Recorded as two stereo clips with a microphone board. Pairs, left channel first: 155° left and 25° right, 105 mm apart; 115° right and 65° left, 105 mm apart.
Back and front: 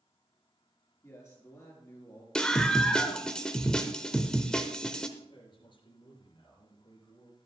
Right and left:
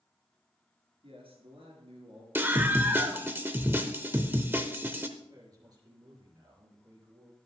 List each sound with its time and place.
1.0 s a man speaking: 95° left, 6 m
2.4 s a scream: 90° left, 0.8 m
5.2 s a man speaking: 120° left, 5 m